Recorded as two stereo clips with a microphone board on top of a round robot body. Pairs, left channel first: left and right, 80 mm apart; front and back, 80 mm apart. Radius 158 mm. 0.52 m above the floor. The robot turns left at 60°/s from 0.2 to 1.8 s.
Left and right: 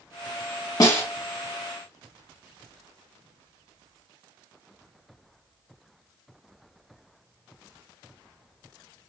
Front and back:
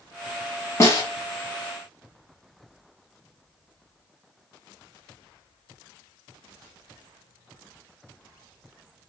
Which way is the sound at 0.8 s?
50° left.